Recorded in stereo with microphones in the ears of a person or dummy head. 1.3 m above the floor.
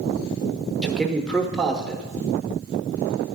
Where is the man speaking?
Centre (ahead or behind), 0.9 m.